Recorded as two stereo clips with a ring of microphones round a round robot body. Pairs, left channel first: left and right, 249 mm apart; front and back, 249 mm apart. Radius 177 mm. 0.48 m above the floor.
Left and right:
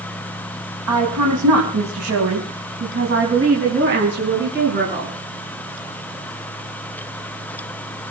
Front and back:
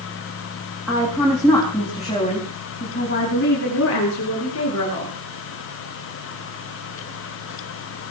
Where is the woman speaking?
100° right, 4.5 m; by 5.1 s 40° right, 6 m.